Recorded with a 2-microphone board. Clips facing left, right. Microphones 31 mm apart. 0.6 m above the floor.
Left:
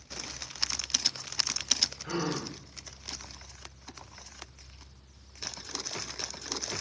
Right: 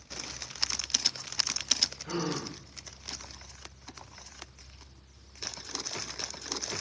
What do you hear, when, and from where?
2.0 s a gasp: 55° left (ahead or behind), 1.4 m